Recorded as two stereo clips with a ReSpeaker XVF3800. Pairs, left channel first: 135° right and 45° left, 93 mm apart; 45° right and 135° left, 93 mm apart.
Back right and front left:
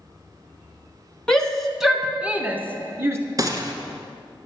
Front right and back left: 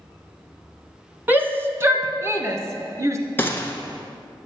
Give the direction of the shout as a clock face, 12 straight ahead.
7 o'clock.